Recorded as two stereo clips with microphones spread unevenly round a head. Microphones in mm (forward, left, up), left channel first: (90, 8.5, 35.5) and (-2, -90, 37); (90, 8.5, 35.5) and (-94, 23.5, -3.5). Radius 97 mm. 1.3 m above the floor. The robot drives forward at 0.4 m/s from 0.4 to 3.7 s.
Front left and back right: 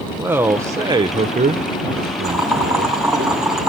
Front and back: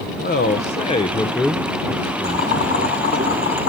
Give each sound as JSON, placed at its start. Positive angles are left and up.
{"t": 0.2, "sound": "a man speaking", "azimuth_deg": -55, "distance_m": 0.8}
{"t": 2.2, "sound": "boiling", "azimuth_deg": -45, "distance_m": 7.5}